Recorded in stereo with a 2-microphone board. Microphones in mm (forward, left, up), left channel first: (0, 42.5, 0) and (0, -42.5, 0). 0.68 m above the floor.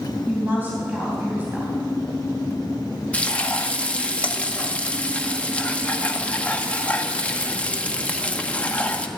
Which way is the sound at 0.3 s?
20° right (ahead or behind).